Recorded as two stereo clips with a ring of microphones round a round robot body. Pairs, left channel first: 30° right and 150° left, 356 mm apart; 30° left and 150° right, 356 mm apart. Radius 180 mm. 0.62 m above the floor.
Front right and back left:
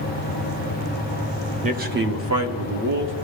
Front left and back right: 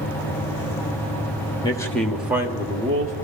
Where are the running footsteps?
I don't hear running footsteps.